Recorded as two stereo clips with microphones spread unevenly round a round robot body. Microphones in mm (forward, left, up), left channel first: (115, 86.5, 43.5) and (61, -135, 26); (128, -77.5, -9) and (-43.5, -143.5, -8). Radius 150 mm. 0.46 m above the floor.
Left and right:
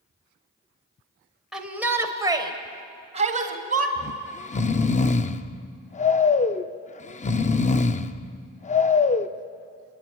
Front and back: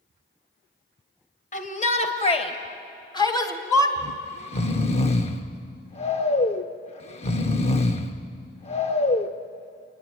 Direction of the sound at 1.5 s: 15° right.